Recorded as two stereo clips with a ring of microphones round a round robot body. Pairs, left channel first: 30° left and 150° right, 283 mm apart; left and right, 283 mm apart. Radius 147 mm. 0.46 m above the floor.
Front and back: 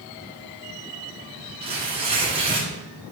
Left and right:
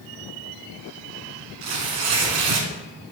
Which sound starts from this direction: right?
Tearing paper, at 1.6 s.